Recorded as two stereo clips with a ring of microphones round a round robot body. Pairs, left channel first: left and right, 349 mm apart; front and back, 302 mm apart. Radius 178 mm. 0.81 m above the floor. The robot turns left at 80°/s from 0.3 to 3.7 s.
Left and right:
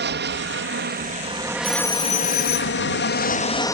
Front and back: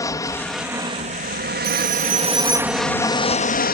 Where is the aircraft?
70° right; by 3.7 s 15° left.